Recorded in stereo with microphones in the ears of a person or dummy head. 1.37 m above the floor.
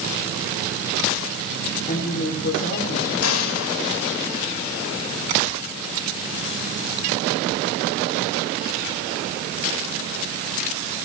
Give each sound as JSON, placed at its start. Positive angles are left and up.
{"t": 1.9, "sound": "a woman speaking", "side_deg": 50, "distance_m": 8.5}
{"t": 3.2, "sound": "an explosion", "side_deg": 85, "distance_m": 4.0}